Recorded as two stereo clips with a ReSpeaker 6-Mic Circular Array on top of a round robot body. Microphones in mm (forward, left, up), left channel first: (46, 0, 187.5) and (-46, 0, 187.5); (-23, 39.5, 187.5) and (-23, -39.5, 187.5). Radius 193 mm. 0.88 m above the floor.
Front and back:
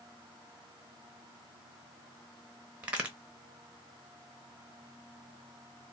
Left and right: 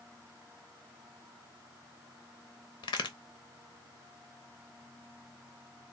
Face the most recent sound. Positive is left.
turn(degrees=105)